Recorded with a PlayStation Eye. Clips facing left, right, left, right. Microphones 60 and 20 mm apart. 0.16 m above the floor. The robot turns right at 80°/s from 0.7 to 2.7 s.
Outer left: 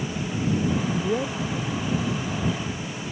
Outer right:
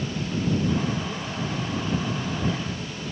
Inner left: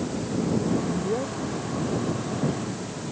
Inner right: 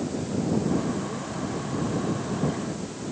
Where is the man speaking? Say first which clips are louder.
Outer left 5 dB, inner left 3 dB; 50° left (ahead or behind); by 3.0 s 20° right (ahead or behind).